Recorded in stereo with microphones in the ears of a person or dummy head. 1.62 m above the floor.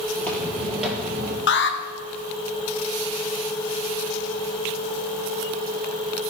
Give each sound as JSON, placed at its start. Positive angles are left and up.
{"t": 0.1, "sound": "footsteps", "side_deg": 10, "distance_m": 2.5}
{"t": 1.5, "sound": "an alarm", "side_deg": 60, "distance_m": 1.1}